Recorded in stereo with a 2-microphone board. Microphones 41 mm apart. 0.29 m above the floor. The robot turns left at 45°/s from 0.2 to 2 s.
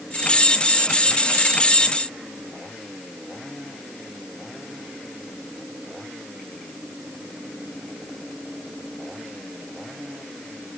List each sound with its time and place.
Only background noise.